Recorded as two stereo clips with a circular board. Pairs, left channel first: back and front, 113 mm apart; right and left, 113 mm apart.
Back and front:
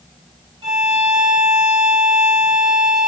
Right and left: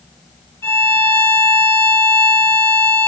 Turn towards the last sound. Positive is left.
turn(degrees=-30)